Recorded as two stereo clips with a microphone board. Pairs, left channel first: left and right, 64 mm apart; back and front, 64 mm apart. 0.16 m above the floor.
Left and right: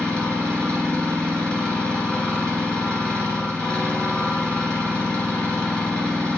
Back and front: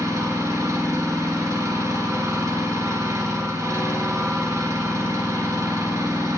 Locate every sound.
0.0 s an engine running: 20° left, 1.5 m